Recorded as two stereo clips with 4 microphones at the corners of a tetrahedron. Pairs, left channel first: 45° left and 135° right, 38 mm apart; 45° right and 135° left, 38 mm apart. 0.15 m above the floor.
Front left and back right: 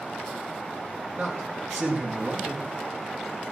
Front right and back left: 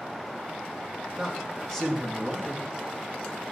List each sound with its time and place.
1.2 s a man speaking: 140° right, 5 m